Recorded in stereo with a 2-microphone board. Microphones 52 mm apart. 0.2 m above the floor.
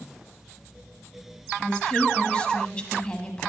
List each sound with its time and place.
1.6 s a woman speaking: 15° left (ahead or behind), 1.0 m